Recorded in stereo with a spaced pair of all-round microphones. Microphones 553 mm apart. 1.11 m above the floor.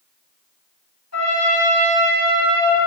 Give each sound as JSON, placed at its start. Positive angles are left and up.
{"t": 1.1, "sound": "a trumpet", "side_deg": 25, "distance_m": 2.5}